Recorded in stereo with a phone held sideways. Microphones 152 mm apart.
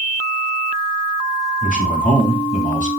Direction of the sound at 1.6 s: 55° left (ahead or behind).